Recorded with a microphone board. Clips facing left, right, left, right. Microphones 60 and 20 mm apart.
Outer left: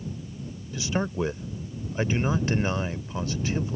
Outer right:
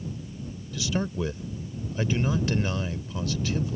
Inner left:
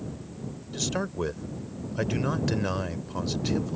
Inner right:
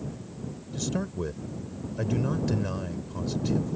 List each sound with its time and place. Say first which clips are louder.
0.7 s a man speaking: outer left 1 dB, inner left 2 dB; 30° left (ahead or behind)